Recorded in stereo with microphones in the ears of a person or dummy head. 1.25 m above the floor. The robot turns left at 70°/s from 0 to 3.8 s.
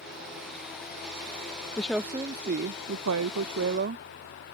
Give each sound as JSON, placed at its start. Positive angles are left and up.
{"t": 1.8, "sound": "a woman speaking", "azimuth_deg": 10}